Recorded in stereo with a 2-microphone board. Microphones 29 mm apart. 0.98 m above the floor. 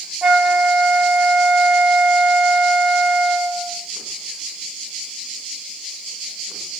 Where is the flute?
30° right (ahead or behind), 1.6 m.